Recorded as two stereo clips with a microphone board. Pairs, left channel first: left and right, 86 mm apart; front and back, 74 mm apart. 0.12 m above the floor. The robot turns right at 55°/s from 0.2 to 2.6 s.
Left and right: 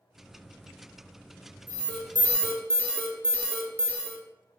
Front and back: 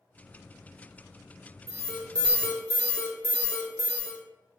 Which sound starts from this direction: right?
An alarm, at 1.7 s.